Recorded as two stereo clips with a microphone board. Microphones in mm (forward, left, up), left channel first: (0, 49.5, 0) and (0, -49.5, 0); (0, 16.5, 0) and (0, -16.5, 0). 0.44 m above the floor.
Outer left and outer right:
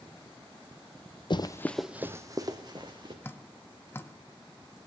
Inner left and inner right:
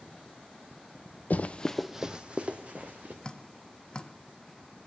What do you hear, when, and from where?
1.3 s running footsteps: 50° left (ahead or behind), 0.8 m; by 3.1 s 50° right (ahead or behind), 2 m
3.2 s dripping: 25° left (ahead or behind), 0.7 m